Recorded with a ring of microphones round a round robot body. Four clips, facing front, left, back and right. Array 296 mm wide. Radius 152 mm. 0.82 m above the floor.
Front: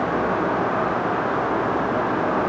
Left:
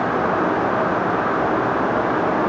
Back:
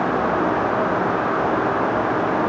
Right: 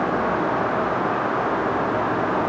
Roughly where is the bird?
No bird in this recording.